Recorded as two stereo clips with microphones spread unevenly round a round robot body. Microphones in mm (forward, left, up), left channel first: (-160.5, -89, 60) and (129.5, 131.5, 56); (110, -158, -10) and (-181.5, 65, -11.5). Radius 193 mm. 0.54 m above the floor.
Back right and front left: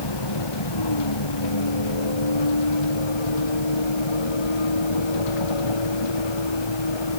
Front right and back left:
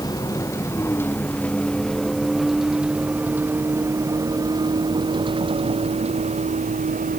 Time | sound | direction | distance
0.0 | a vehicle | 120° right | ?